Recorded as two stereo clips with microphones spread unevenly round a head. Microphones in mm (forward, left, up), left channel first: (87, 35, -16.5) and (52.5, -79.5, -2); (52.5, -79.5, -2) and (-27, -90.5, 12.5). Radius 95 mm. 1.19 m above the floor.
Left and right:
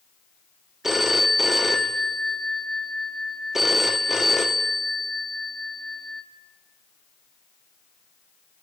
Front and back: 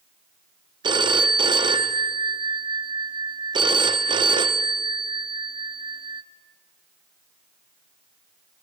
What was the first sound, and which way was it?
A phone ringing, 170° left.